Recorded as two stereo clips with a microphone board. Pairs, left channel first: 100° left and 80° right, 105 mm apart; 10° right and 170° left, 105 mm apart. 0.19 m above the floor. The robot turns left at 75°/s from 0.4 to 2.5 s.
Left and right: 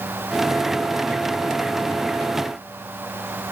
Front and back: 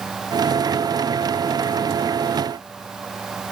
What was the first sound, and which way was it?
Only background noise.